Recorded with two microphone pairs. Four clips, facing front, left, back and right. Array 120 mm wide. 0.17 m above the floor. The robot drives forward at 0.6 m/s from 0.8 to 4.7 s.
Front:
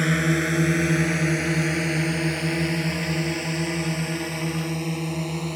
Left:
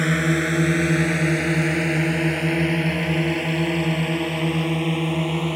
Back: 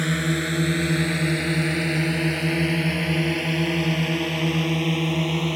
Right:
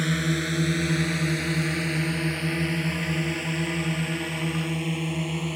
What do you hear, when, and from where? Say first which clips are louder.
0.0 s a drone: left 5 dB, front 2 dB; 75° left; by 5.6 s 105° left